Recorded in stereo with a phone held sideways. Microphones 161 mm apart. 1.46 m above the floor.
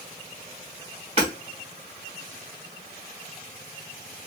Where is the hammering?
40° right (ahead or behind), 2 m.